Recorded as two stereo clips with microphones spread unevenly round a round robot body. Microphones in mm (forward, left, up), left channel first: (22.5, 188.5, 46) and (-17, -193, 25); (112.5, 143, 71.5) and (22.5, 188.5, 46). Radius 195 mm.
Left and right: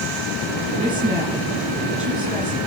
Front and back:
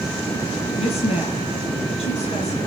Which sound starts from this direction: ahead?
A woman speaking, at 0.8 s.